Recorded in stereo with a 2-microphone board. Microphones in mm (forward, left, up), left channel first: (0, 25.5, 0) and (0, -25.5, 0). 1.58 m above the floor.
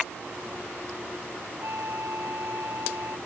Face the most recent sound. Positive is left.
turn(degrees=-70)  # may be behind; listen again after turning